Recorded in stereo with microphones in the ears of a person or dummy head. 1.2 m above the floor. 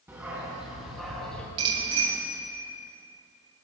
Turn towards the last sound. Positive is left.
turn(degrees=-35)  # may be behind; listen again after turning